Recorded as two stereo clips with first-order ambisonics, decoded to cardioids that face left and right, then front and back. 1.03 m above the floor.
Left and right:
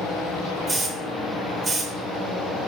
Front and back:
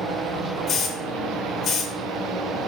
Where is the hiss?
35° right, 0.8 m.